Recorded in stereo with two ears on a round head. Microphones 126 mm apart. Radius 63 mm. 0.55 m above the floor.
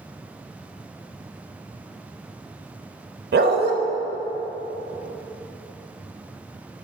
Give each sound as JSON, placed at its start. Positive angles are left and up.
{"t": 3.3, "sound": "a dog barking", "side_deg": -80, "distance_m": 0.7}